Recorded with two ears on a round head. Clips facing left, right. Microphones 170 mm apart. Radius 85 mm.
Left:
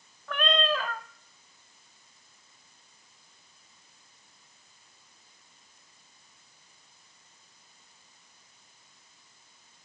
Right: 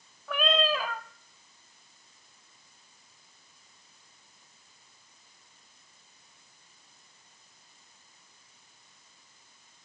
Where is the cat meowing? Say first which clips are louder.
Right 1 dB; 5° right (ahead or behind), 0.7 m.